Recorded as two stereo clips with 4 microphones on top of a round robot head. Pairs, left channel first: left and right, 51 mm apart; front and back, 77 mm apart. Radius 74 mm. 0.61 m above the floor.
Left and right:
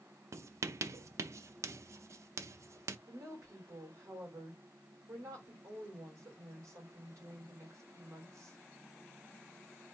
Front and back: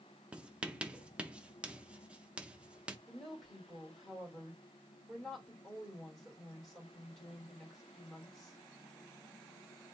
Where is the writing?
105° right, 0.5 m.